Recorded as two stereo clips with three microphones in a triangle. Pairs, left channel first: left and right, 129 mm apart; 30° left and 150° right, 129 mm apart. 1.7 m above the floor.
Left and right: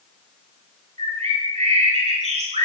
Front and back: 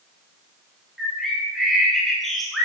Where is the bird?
60° right, 3 m.